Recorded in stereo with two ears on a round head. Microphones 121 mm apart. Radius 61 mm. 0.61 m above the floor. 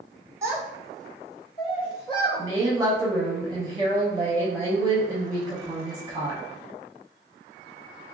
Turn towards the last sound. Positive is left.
turn(degrees=-25)  # may be behind; listen again after turning